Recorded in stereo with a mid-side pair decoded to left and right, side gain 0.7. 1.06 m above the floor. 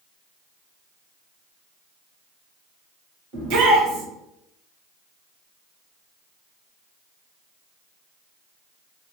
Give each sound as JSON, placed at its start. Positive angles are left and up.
{"t": 3.3, "sound": "a shout", "azimuth_deg": -65, "distance_m": 1.3}